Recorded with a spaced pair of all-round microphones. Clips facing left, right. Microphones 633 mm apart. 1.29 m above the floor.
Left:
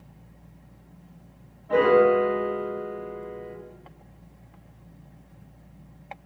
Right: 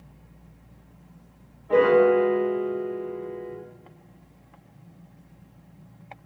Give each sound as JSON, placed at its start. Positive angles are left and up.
{"t": 1.7, "sound": "a piano", "side_deg": 15, "distance_m": 2.0}